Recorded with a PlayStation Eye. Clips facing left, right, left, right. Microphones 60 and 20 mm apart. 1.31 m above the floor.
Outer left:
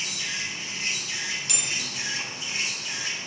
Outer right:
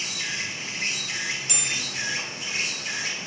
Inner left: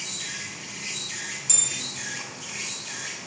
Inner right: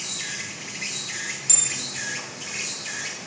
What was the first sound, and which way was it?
An insect, 75° right (ahead or behind).